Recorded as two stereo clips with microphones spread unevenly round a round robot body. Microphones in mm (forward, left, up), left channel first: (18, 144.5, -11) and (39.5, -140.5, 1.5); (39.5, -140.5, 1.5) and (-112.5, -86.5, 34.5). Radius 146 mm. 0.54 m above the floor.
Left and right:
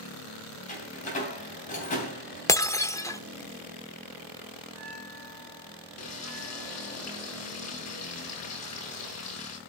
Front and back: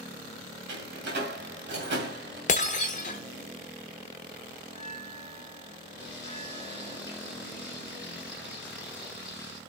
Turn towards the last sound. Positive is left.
turn(degrees=60)